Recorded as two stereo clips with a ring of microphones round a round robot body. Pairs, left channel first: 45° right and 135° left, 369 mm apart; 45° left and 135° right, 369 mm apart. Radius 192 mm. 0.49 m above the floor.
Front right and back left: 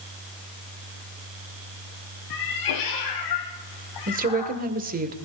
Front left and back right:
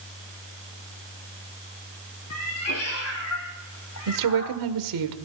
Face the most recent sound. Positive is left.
turn(degrees=-160)